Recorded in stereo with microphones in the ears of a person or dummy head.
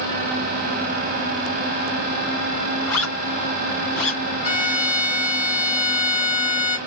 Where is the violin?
5° right (ahead or behind), 1.5 m.